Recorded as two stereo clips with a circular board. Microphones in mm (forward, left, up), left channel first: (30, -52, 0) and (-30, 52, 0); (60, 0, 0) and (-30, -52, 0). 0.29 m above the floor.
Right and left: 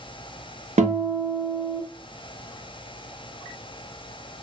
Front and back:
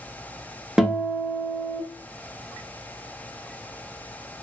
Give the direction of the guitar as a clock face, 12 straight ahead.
8 o'clock.